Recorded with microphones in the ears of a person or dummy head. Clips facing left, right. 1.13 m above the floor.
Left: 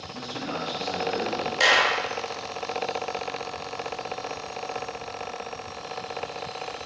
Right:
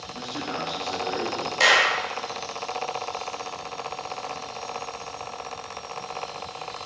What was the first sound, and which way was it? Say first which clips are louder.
A man speaking: even; 65° left (ahead or behind).